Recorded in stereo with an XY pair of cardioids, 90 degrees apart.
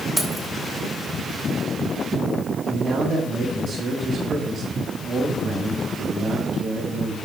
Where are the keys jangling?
15° right, 3 m.